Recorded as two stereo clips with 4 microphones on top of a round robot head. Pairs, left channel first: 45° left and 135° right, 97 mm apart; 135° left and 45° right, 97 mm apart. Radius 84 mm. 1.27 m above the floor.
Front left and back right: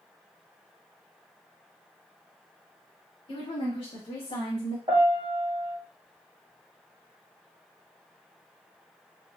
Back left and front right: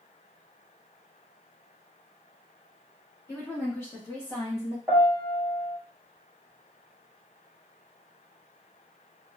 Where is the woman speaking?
70° left, 2 m.